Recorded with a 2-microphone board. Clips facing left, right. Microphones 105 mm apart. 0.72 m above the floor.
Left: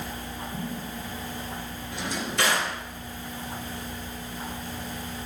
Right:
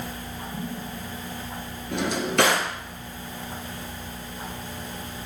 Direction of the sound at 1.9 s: 55° right (ahead or behind).